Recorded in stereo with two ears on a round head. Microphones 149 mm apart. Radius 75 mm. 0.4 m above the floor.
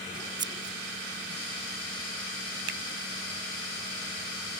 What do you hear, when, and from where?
0.4 s scissors: 25° right (ahead or behind)
2.7 s a finger snap: 65° right (ahead or behind)